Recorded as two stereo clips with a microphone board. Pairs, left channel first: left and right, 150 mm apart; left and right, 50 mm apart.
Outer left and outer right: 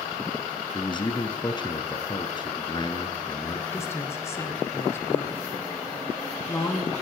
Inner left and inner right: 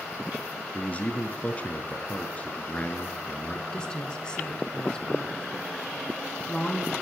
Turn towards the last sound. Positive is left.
turn(degrees=15)  # may be behind; listen again after turning